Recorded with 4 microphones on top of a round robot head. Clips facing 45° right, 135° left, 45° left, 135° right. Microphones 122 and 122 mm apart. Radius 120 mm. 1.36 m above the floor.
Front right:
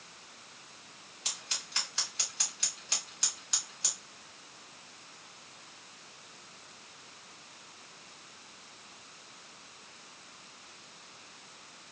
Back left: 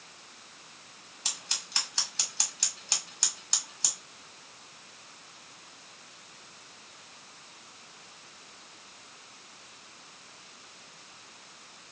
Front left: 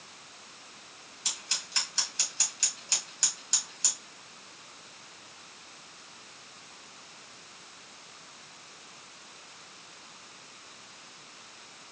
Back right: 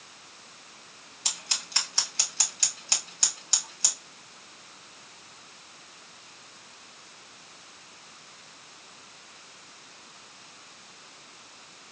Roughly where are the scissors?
Behind.